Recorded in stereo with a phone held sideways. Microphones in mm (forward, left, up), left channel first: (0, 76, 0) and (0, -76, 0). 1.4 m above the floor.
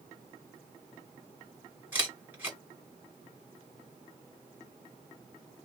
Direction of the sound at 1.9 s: 10° right (ahead or behind).